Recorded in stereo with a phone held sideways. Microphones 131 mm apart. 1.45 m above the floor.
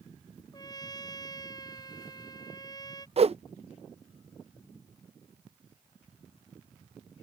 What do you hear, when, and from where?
0.5 s a trumpet: 30° left (ahead or behind)
3.2 s a whoosh: 50° right (ahead or behind)